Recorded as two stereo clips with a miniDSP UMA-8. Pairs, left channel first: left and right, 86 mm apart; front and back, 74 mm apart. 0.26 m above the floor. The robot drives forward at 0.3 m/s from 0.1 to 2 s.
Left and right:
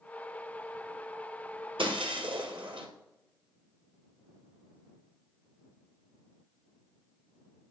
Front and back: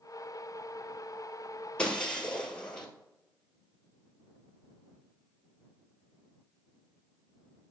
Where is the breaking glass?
75° right, 1.8 m; by 2.9 s 80° right, 1.8 m.